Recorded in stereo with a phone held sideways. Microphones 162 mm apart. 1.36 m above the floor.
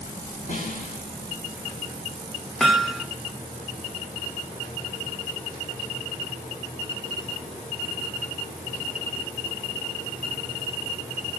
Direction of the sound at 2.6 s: Centre (ahead or behind).